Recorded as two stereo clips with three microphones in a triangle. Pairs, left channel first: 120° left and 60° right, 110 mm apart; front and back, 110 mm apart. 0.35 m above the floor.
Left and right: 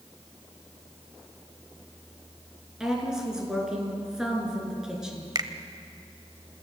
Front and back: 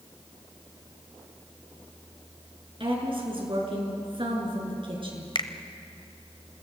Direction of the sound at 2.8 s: 145° right.